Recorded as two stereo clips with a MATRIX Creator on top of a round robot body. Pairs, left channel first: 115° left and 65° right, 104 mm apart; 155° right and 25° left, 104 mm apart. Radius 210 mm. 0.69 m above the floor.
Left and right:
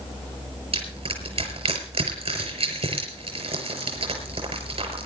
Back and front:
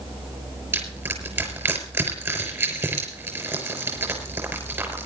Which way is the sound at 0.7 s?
45° right.